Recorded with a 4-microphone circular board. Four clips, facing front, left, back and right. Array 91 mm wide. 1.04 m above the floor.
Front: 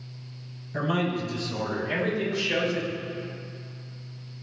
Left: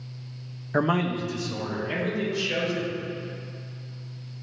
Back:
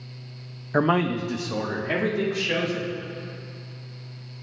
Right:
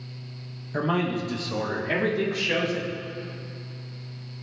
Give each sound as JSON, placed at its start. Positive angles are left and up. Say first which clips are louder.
{"t": 0.7, "sound": "a man speaking", "louder": "left 1 dB, back 5 dB", "azimuth_deg": 155, "distance_m": 0.8}